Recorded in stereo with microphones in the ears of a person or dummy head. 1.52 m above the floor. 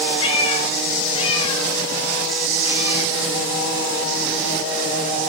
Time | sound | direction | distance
0.2 | a cat meowing | 35° left (ahead or behind) | 3.5 m